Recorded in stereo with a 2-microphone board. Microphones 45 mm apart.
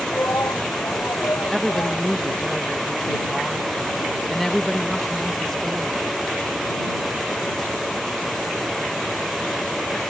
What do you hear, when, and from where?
0.1 s a shout: 75° left (ahead or behind); by 2.1 s 80° left
1.5 s a woman speaking: 5° left (ahead or behind)